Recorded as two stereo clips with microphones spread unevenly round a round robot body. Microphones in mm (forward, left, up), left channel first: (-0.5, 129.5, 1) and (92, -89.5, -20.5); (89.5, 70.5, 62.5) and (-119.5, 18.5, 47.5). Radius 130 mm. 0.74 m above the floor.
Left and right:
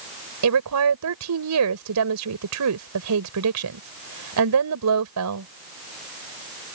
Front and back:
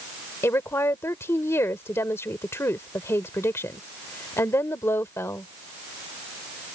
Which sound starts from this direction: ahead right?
A woman speaking, at 0.4 s.